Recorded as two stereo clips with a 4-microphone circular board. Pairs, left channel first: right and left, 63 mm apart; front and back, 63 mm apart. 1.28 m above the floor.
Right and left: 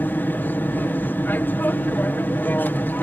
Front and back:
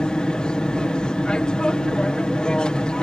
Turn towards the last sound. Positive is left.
turn(degrees=-65)